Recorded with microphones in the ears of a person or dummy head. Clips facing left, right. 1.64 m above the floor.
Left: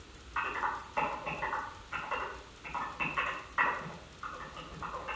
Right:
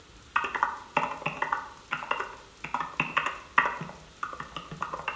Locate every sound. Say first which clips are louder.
0.3 s typing on a keyboard: right 5 dB; 80° right, 1.0 m